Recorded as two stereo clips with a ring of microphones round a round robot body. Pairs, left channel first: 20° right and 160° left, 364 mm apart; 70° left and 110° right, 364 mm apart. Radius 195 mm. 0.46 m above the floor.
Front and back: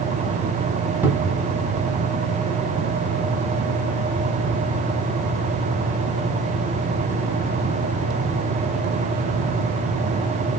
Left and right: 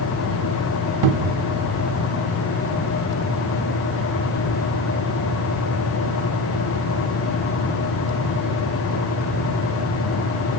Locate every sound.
1.0 s a cupboard door: 120° right, 0.6 m